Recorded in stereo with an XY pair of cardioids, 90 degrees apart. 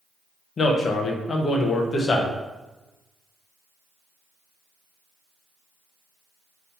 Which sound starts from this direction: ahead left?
A man speaking, at 0.6 s.